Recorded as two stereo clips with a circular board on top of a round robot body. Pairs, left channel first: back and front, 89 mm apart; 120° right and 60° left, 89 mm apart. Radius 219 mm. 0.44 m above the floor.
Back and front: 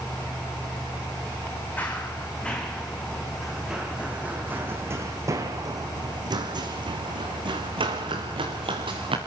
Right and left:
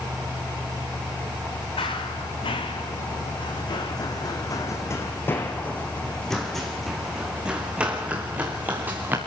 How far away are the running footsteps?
About 3.5 m.